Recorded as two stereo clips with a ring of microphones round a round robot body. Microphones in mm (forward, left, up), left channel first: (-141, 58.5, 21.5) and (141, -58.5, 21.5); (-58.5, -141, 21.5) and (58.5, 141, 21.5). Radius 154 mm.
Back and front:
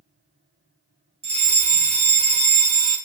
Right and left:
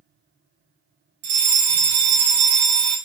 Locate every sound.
1.2 s a fire alarm: 45° left, 5 m